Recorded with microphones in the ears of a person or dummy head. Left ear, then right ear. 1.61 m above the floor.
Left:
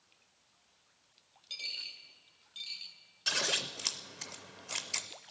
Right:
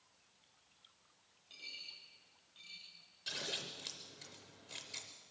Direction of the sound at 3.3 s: 40° left (ahead or behind).